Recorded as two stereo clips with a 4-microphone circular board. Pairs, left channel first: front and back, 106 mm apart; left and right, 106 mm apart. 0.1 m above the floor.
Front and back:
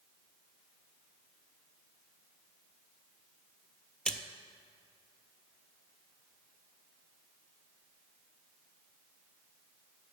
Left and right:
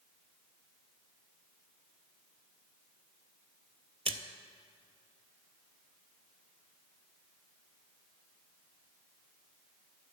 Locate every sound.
4.0 s a splash: 80° right, 0.5 m